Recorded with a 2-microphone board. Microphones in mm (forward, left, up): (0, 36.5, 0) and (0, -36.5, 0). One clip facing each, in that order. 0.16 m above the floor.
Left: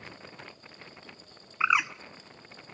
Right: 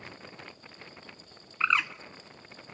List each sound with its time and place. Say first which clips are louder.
1.6 s a bird: left 2 dB; 15° left (ahead or behind), 0.6 m